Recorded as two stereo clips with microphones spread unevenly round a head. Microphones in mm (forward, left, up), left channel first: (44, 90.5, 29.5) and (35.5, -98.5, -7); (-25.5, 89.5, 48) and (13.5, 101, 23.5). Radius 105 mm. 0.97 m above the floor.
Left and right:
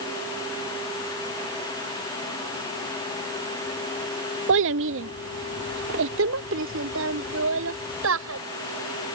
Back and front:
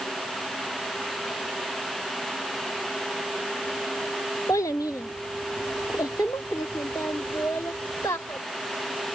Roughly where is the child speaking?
Right.